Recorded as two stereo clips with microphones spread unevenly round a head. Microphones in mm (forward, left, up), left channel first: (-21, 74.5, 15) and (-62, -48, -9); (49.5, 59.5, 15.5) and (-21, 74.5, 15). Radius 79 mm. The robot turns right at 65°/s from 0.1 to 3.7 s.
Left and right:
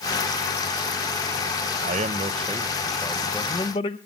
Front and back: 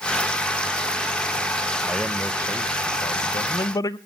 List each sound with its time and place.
1.8 s a man speaking: 110° right, 0.5 m; by 4.0 s 10° left, 0.5 m